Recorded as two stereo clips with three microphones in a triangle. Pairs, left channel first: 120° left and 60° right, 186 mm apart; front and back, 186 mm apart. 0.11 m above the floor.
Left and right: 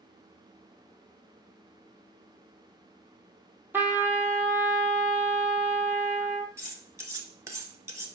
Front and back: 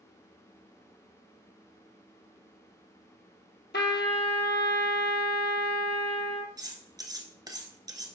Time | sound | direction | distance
3.7 | a trumpet | 20° left | 0.8 m
6.6 | cutlery clinking | 125° right | 0.9 m